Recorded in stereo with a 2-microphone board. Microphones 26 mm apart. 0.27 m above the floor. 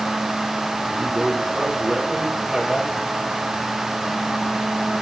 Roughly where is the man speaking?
Right.